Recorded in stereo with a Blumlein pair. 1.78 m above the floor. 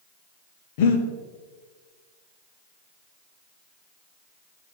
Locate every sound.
0.8 s breathing: 50° left, 0.9 m